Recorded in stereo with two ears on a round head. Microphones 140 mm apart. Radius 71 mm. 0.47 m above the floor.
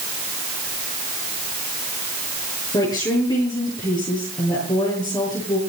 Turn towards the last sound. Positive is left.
turn(degrees=25)  # may be behind; listen again after turning